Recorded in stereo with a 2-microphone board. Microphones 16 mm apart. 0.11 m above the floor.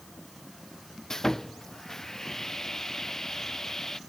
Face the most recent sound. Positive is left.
turn(degrees=35)  # may be behind; listen again after turning